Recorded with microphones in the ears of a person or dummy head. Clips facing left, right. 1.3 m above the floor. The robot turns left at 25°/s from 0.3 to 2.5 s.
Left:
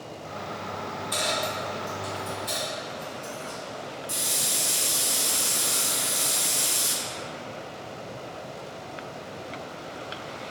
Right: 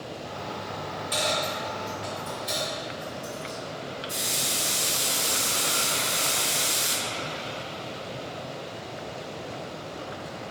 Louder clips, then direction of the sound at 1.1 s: Right 1 dB; 10° right (ahead or behind).